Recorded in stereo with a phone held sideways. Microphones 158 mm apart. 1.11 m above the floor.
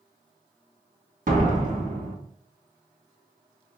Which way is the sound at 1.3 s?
55° right (ahead or behind).